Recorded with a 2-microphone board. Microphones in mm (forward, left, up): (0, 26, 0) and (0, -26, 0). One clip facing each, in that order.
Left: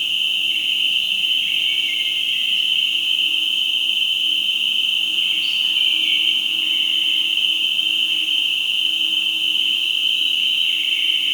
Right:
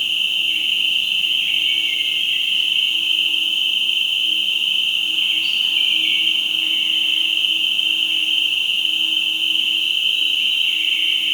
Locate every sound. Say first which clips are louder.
0.0 s an insect: right 1 dB; 35° right (ahead or behind), 1.3 m